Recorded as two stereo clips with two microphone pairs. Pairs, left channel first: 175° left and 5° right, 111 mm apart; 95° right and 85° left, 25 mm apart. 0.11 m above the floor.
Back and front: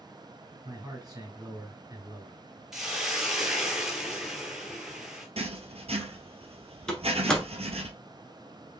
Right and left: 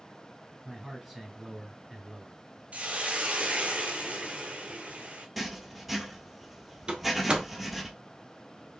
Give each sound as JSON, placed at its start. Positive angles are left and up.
{"t": 0.7, "sound": "a man speaking", "azimuth_deg": 10, "distance_m": 1.7}
{"t": 2.7, "sound": "a hiss", "azimuth_deg": 80, "distance_m": 1.0}
{"t": 5.4, "sound": "writing", "azimuth_deg": -5, "distance_m": 0.9}
{"t": 6.9, "sound": "a door slam", "azimuth_deg": 95, "distance_m": 1.1}